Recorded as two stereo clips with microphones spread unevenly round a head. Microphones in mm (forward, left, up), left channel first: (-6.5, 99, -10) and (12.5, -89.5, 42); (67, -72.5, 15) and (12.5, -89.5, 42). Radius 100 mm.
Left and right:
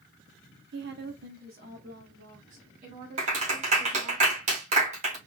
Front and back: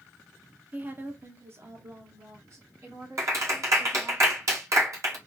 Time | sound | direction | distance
0.7 | a woman speaking | 105° right | 0.6 m
3.2 | a clap | 140° right | 2 m